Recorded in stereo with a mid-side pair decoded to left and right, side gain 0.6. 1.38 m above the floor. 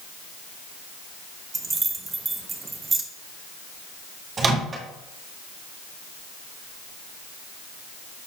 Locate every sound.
1.5 s keys jangling: 25° right, 1.2 m
4.4 s a microwave: 35° right, 1.7 m